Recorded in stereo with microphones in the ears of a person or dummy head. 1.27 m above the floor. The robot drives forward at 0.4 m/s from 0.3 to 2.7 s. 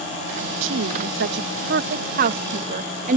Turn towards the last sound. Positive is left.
turn(degrees=-45)  # may be behind; listen again after turning